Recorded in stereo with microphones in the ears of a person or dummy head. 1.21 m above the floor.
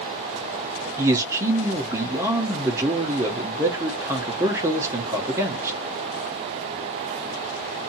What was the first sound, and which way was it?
A man speaking, 15° right (ahead or behind).